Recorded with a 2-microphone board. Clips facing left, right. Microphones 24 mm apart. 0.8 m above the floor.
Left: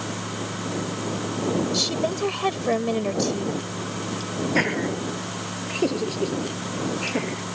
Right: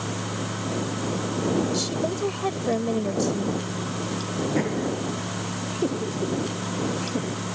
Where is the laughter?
75° left (ahead or behind).